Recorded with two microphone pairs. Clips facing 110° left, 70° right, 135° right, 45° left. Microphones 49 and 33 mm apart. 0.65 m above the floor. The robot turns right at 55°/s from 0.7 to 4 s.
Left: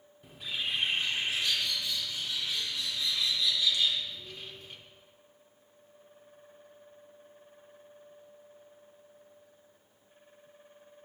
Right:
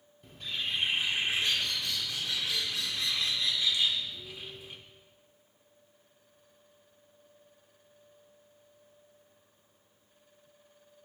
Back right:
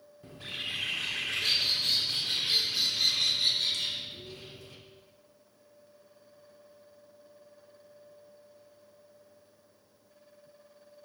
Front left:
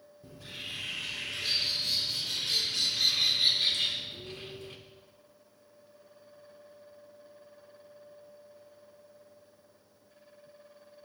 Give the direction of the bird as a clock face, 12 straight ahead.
6 o'clock.